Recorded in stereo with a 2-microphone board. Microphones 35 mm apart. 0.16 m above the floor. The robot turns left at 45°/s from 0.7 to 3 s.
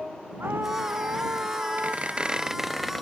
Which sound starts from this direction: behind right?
A squeak, at 1.8 s.